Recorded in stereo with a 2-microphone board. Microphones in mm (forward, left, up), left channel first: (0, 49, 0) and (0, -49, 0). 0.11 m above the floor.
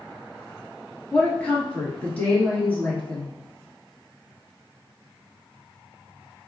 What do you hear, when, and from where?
1.1 s a woman speaking: 15° left (ahead or behind), 1.4 m